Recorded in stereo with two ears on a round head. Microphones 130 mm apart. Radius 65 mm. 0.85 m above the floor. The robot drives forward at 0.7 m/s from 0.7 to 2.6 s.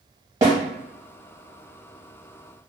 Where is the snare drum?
25° right (ahead or behind), 1.4 m.